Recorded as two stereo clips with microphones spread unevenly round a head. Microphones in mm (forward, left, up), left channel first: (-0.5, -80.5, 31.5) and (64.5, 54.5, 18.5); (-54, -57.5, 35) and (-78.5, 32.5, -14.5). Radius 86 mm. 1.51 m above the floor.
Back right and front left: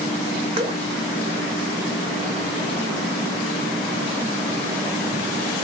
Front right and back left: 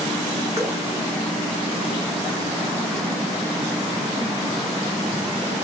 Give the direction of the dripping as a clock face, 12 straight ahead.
12 o'clock.